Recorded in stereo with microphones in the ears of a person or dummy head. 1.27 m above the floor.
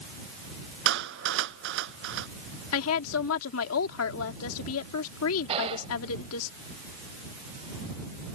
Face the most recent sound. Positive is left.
turn(degrees=-25)  # may be behind; listen again after turning